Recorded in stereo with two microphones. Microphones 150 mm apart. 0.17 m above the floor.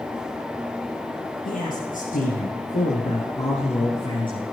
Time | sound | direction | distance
1.4 | a man speaking | 65° left (ahead or behind) | 3 m